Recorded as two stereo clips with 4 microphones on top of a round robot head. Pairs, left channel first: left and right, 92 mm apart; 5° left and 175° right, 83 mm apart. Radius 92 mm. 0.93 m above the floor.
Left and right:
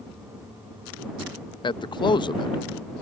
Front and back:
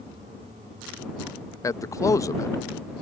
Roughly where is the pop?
I don't hear a pop.